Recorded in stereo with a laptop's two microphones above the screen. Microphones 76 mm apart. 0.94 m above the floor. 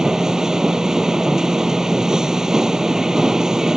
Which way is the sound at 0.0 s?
10° right (ahead or behind).